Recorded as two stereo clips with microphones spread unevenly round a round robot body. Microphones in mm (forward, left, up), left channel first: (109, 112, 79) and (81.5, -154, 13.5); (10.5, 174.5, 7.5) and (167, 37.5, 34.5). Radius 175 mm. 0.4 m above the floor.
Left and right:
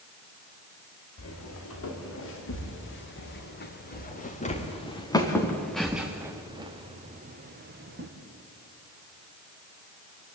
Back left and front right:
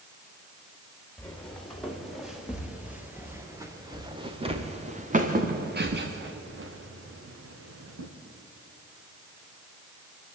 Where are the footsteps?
55° left, 6 m; by 8.1 s 45° right, 3.5 m.